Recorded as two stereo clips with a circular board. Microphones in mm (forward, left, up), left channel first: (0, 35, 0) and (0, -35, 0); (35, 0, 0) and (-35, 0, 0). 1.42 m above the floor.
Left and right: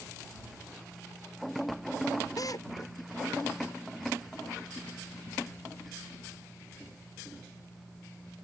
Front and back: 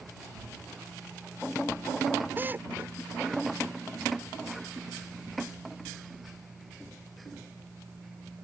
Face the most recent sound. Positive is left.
turn(degrees=120)